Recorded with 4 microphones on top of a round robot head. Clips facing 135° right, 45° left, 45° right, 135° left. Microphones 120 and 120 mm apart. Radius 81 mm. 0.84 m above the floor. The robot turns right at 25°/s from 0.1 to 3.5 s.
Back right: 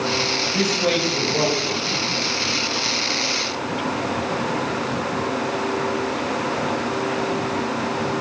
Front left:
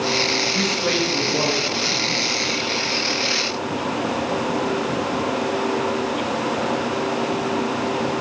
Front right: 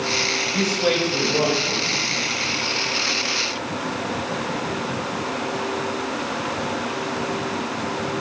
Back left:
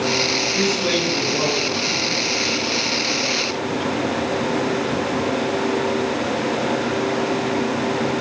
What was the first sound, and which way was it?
A man speaking, 85° right.